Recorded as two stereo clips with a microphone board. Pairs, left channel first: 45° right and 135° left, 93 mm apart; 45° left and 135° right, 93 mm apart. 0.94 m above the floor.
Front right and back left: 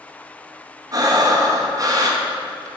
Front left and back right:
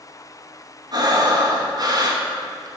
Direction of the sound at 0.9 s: Straight behind.